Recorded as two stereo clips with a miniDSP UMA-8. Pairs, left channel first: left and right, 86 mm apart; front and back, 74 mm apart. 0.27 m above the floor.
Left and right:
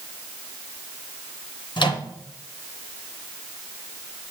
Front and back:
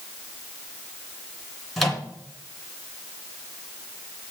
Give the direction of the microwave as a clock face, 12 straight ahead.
9 o'clock.